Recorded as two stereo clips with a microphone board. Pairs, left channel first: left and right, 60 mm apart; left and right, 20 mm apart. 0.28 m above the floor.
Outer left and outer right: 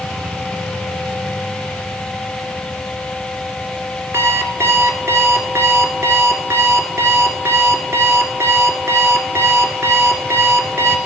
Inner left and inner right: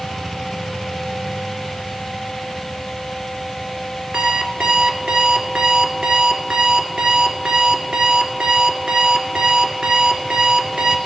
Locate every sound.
4.1 s an alarm clock: 50° right (ahead or behind), 1.6 m